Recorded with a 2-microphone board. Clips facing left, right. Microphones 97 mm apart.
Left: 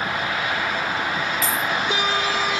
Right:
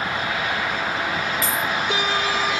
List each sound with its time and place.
1.4 s a dropped coin: 55° right (ahead or behind), 1.4 m